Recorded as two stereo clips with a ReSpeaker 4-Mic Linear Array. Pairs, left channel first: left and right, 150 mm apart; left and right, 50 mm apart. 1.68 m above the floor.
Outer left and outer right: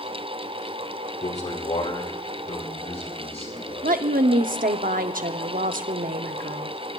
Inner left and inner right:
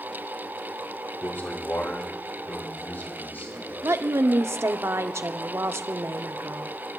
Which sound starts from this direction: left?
A man speaking, at 1.2 s.